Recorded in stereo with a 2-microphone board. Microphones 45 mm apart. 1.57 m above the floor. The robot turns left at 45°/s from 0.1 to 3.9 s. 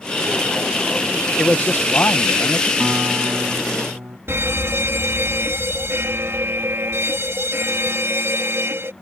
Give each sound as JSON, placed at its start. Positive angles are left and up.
{"t": 1.4, "sound": "a man speaking", "azimuth_deg": 150}
{"t": 2.8, "sound": "a guitar", "azimuth_deg": -25}
{"t": 4.3, "sound": "a fire alarm", "side_deg": -60}